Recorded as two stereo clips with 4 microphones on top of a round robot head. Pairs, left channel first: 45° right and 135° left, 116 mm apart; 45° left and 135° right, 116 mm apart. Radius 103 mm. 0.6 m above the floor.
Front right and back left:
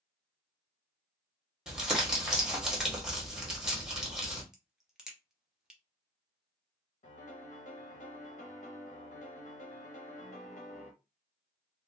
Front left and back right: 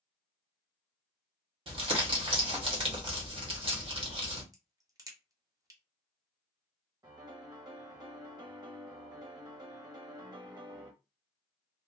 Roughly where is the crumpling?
Behind right.